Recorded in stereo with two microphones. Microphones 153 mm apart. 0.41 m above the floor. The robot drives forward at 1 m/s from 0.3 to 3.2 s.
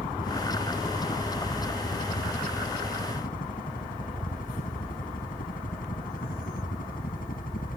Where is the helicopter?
65° left (ahead or behind).